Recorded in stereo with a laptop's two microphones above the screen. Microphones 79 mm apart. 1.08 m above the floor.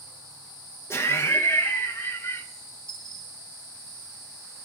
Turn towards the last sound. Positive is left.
turn(degrees=10)  # may be behind; listen again after turning